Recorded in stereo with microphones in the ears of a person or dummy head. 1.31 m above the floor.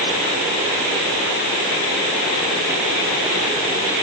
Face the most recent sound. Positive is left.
No sound to turn to.